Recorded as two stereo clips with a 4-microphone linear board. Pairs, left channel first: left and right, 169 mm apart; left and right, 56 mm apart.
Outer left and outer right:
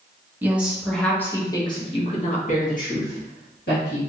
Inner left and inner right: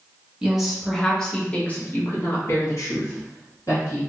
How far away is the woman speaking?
About 1.1 m.